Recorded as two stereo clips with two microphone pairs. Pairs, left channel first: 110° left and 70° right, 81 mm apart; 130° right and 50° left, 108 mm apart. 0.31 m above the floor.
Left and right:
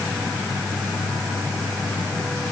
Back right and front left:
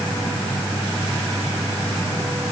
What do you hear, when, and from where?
Only background noise.